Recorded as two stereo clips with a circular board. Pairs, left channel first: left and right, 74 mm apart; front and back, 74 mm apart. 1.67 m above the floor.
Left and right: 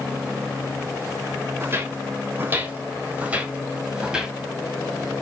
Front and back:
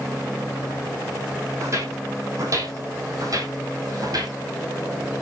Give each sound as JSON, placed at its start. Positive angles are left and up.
{"t": 1.6, "sound": "footsteps", "azimuth_deg": -140, "distance_m": 3.5}